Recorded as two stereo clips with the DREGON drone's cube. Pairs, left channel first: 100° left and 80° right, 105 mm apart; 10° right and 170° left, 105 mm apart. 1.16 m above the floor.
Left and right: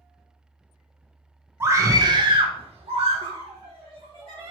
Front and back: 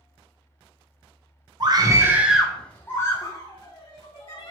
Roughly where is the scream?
Behind right.